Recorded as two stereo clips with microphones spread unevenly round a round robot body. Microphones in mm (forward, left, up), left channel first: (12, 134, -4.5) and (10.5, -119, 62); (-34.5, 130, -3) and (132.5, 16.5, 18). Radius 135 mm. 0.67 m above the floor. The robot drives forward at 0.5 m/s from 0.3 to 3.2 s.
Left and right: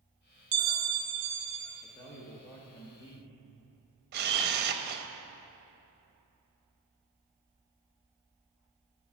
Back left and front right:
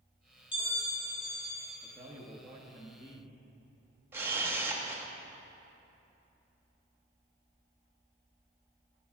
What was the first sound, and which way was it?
A bell, 145° right.